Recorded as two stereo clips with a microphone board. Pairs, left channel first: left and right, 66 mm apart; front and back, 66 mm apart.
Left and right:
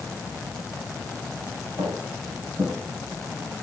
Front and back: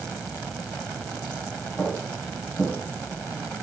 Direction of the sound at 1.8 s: 95° right.